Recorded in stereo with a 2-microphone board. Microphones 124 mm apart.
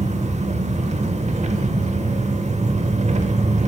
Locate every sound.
0.0 s an engine running: 70° right (ahead or behind), 0.9 m